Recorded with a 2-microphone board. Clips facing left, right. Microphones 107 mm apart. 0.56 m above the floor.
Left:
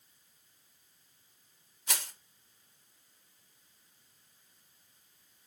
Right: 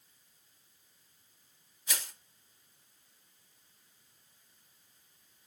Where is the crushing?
75° left (ahead or behind), 1.0 m.